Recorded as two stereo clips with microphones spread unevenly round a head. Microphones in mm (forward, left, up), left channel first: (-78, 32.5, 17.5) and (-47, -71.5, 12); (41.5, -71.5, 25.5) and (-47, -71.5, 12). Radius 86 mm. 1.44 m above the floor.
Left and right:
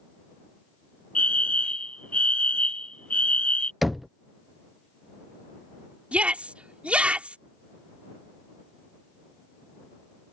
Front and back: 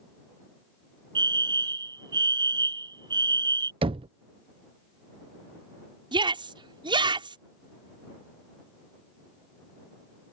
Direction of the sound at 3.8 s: 160° right.